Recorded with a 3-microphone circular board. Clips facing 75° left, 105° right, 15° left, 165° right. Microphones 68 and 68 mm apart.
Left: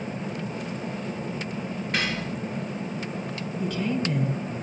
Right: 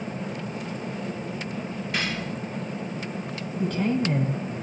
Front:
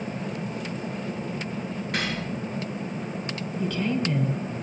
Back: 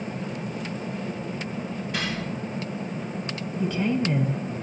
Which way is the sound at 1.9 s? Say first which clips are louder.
Left 1 dB, front 1 dB; 35° left.